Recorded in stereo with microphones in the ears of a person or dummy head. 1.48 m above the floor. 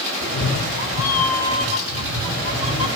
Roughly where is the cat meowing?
Left.